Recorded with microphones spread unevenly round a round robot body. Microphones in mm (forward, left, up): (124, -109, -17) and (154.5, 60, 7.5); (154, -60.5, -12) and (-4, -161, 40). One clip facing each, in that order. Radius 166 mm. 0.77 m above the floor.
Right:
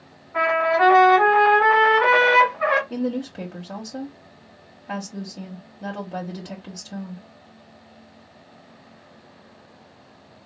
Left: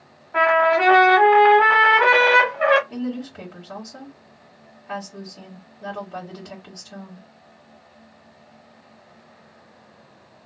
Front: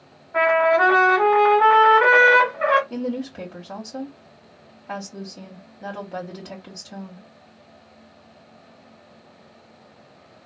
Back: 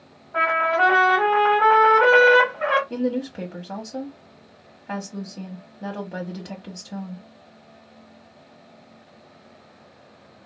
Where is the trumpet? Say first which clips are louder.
Left 2 dB, front 6 dB; 105° left, 1.1 m.